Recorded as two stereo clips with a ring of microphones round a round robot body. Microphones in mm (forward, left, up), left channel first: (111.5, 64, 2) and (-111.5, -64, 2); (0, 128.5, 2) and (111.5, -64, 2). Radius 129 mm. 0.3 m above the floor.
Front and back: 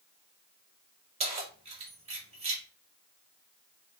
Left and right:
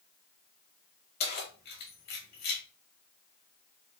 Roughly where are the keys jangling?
Behind left.